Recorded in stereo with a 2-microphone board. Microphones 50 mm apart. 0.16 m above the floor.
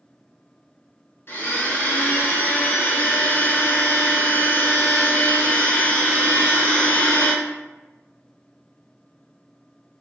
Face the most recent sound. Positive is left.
turn(degrees=50)  # may be behind; listen again after turning